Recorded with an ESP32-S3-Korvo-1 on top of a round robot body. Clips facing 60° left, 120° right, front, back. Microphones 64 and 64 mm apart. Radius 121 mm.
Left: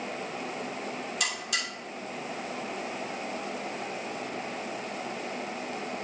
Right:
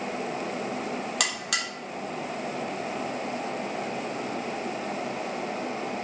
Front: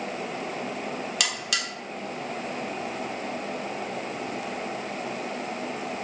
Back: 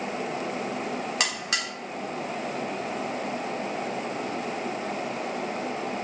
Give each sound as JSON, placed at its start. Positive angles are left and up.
{"t": 1.2, "sound": "a buzzer", "azimuth_deg": -120, "distance_m": 1.9}